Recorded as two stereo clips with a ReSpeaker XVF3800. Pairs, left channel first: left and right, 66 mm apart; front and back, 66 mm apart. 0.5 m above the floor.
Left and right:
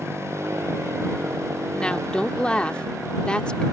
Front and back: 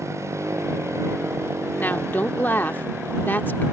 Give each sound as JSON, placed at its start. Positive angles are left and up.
{"t": 0.0, "sound": "a motorcycle", "azimuth_deg": -135}
{"t": 1.7, "sound": "a woman speaking", "azimuth_deg": 30}